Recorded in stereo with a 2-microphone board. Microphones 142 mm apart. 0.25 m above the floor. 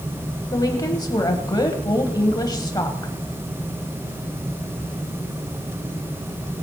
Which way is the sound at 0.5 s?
30° left (ahead or behind).